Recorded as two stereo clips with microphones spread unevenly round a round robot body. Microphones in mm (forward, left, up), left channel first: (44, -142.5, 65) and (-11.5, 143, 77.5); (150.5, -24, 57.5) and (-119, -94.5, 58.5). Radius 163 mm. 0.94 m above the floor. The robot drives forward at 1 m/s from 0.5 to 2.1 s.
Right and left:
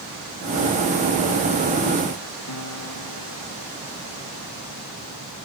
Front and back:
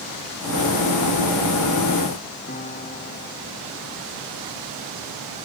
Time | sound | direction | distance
2.5 | a piano | 50° right | ?